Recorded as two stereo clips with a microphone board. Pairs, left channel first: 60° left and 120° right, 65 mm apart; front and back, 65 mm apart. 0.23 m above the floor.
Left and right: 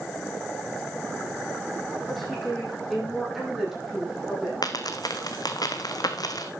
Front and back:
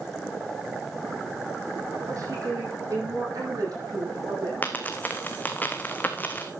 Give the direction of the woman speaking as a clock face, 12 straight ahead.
7 o'clock.